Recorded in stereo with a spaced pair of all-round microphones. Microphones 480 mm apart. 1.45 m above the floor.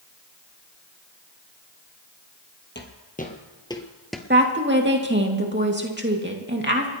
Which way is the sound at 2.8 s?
20° left (ahead or behind).